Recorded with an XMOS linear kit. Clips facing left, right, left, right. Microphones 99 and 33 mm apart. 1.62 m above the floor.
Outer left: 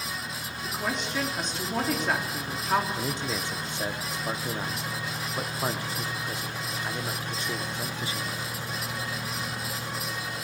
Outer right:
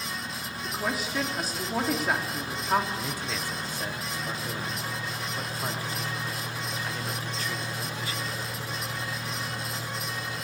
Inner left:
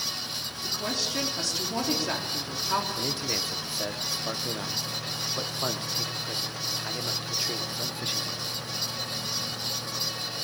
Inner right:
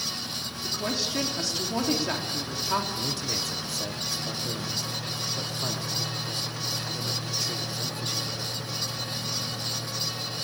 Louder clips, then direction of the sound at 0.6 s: Even, inner right 1 dB; 5° right (ahead or behind).